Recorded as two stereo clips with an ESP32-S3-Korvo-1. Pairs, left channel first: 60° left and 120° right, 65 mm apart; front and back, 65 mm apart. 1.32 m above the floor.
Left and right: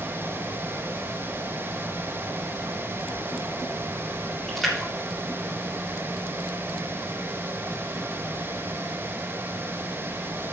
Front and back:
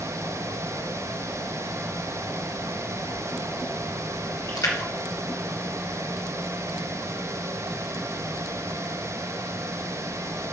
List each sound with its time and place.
4.5 s a splash: 25° right, 2 m